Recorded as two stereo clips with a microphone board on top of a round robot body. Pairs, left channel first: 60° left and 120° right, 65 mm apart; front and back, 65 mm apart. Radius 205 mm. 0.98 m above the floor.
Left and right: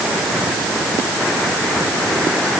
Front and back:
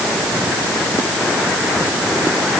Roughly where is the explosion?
I don't hear an explosion.